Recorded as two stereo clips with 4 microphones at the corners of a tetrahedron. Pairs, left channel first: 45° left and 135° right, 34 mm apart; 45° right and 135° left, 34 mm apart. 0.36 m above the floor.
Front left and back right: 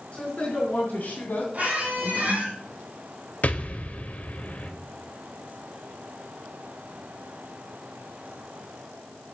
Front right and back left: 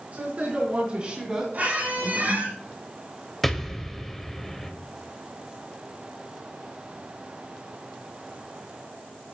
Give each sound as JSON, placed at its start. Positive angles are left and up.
{"t": 0.1, "sound": "a woman speaking", "azimuth_deg": 90, "distance_m": 4.0}
{"t": 1.5, "sound": "a squeak", "azimuth_deg": 175, "distance_m": 5.5}
{"t": 3.4, "sound": "an explosion", "azimuth_deg": 35, "distance_m": 1.2}